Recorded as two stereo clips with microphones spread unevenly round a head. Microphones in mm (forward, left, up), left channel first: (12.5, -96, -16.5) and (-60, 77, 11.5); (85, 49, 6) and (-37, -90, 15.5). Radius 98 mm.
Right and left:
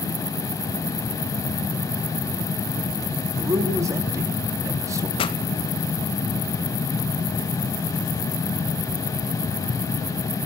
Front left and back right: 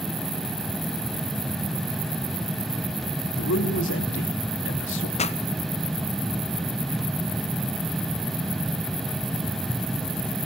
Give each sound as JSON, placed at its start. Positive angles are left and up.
{"t": 3.4, "sound": "a man speaking", "azimuth_deg": 40, "distance_m": 3.0}
{"t": 5.2, "sound": "a pop", "azimuth_deg": -5, "distance_m": 1.4}